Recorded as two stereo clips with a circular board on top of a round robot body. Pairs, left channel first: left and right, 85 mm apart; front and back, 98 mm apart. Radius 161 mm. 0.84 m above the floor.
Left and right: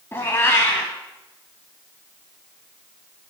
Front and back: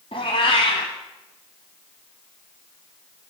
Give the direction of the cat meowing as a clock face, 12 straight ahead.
11 o'clock.